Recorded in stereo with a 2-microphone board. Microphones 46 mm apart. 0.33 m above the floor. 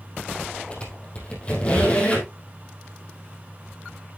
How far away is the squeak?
About 3.5 m.